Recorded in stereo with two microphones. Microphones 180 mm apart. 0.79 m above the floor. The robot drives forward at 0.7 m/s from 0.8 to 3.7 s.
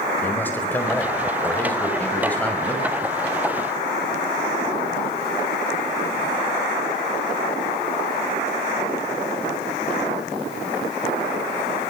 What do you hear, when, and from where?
0.2 s a man speaking: 10° left (ahead or behind), 4.5 m; by 3.0 s 5° left (ahead or behind), 6 m